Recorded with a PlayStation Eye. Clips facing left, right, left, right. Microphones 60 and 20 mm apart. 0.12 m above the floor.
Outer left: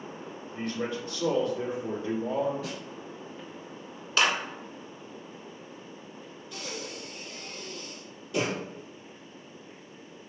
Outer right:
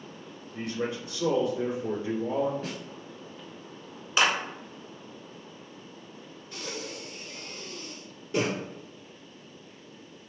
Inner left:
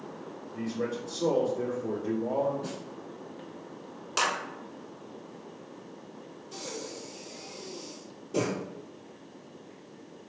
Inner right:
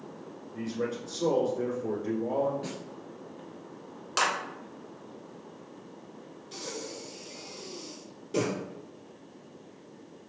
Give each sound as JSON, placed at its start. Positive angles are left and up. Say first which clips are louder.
{"t": 0.5, "sound": "a man speaking", "louder": "outer right 1 dB, even", "side_deg": -20, "distance_m": 1.3}
{"t": 2.6, "sound": "a snare drum", "louder": "even, even", "side_deg": -45, "distance_m": 1.0}
{"t": 4.2, "sound": "a clap", "louder": "outer right 1 dB, inner right 1 dB", "side_deg": -15, "distance_m": 1.0}
{"t": 6.5, "sound": "breathing", "louder": "outer right 1 dB, even", "side_deg": -35, "distance_m": 1.8}